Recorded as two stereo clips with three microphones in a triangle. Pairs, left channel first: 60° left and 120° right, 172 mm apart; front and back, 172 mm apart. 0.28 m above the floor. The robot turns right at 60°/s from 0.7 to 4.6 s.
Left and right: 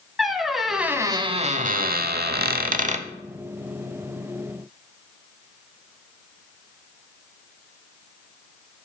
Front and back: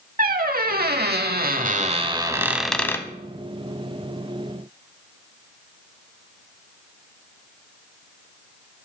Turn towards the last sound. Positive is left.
turn(degrees=25)